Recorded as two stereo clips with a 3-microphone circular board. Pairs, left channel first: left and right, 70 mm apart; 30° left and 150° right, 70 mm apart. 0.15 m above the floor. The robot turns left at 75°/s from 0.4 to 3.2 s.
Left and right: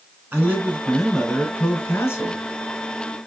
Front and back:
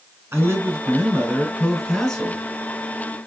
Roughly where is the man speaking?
Behind right.